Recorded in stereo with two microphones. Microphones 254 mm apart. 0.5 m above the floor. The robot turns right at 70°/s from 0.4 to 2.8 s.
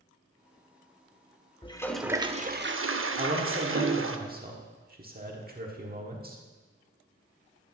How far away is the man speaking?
About 1.2 m.